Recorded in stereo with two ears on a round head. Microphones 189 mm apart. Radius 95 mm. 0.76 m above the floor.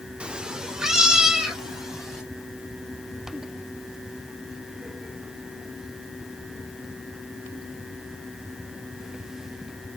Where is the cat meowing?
5° right (ahead or behind), 0.5 m; by 2.2 s centre (ahead or behind), 2.5 m.